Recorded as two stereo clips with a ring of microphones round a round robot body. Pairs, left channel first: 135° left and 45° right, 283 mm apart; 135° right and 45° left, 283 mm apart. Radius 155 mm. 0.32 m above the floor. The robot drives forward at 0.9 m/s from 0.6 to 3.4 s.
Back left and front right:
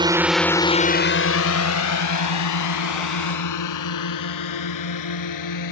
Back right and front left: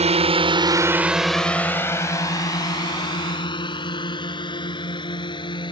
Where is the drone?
10° left; by 5.7 s 150° left.